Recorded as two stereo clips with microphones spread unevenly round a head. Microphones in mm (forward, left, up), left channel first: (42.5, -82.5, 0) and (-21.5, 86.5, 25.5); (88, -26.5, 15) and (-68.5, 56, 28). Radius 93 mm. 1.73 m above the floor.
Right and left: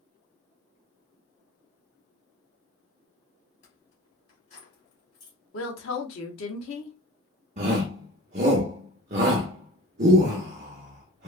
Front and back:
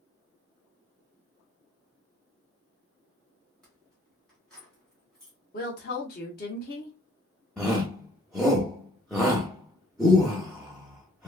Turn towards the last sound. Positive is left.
turn(degrees=60)